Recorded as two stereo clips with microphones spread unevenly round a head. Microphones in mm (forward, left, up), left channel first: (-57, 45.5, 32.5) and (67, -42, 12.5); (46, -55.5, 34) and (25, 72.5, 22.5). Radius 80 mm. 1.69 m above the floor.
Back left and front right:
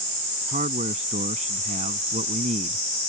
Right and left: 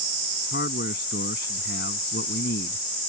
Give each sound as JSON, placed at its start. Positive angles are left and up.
{"t": 0.5, "sound": "a man speaking", "azimuth_deg": -85}